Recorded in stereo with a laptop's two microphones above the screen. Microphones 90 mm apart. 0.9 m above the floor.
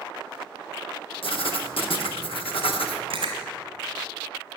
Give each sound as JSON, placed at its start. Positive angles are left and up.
{"t": 1.2, "sound": "writing", "side_deg": 85, "distance_m": 1.2}
{"t": 3.1, "sound": "chewing", "side_deg": -70, "distance_m": 2.5}